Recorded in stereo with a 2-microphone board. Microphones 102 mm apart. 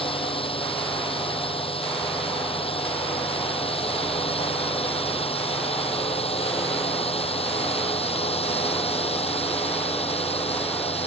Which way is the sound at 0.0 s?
65° left (ahead or behind).